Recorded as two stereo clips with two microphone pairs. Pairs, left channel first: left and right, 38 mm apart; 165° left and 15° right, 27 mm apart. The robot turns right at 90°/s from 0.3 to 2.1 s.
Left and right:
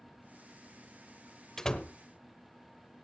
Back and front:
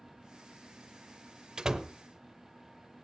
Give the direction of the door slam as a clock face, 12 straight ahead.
11 o'clock.